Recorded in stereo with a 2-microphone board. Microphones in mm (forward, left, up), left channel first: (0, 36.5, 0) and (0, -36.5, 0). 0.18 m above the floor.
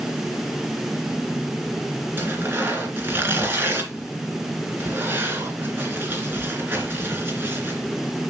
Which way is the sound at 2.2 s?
30° right (ahead or behind).